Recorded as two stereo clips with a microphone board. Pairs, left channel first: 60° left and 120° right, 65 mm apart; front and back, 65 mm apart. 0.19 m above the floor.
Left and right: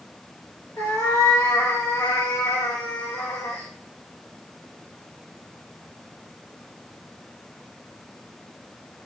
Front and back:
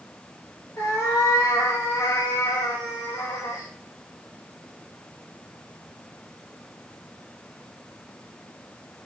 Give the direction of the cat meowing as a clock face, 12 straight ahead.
11 o'clock.